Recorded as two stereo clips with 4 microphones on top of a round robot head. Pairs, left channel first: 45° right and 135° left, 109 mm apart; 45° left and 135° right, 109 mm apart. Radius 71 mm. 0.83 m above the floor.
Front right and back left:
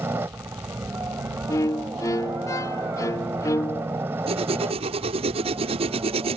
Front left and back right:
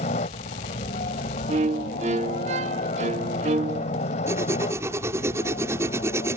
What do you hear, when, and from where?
0.0 s a helicopter: 65° left
1.5 s a violin: 110° right
4.3 s writing: 160° left